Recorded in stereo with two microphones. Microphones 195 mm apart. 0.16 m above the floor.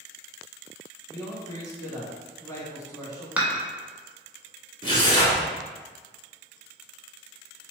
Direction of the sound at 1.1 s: 15° left (ahead or behind).